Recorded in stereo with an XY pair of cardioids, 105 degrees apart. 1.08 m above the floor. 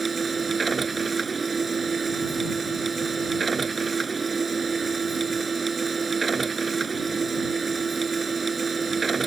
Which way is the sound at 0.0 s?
30° right.